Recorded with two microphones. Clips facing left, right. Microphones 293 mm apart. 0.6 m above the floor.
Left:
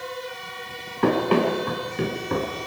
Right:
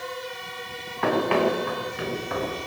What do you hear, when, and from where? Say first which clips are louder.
1.0 s running footsteps: left 2 dB; 40° left (ahead or behind), 5.5 m; by 2.5 s 50° left (ahead or behind), 4.5 m